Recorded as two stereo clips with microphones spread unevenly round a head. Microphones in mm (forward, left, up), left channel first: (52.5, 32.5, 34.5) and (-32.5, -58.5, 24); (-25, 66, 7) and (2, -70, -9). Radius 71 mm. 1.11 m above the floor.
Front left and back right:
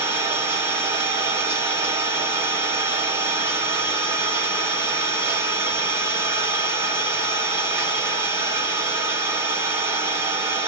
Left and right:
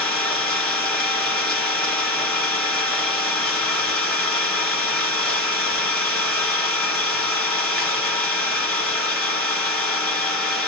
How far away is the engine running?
About 0.7 m.